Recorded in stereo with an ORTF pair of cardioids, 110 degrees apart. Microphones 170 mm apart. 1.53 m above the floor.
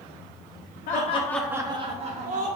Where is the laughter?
60° left, 0.7 m; by 2.5 s 45° right, 1.5 m.